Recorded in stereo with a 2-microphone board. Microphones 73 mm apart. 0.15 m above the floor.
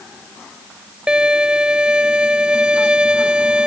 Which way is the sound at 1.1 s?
15° right (ahead or behind).